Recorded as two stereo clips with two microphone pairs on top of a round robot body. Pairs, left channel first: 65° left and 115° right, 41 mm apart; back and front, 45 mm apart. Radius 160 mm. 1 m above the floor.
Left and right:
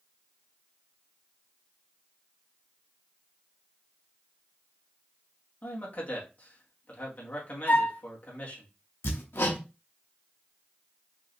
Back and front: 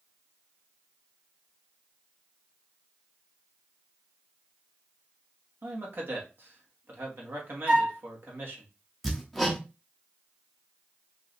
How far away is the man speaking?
About 2 m.